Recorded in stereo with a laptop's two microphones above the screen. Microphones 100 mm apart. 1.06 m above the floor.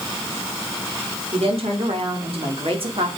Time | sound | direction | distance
1.3 | a woman speaking | 80° right | 3.5 m